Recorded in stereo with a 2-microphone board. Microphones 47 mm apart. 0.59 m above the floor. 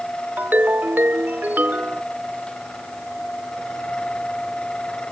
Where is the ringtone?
45° right (ahead or behind).